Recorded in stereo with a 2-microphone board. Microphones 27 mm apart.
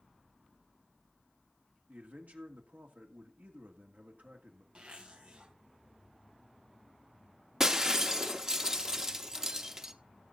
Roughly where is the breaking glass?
Right.